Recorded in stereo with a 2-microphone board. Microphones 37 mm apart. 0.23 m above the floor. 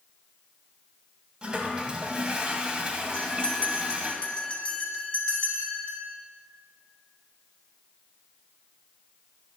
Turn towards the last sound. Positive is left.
turn(degrees=30)  # may be behind; listen again after turning